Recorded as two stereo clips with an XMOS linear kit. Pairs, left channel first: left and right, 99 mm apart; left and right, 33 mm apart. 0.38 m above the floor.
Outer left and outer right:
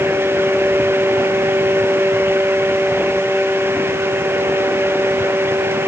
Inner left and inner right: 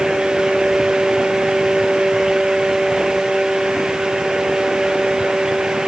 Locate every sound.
Only background noise.